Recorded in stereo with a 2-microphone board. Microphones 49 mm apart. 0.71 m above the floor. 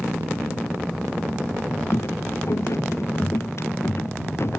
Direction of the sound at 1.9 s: 65° left (ahead or behind).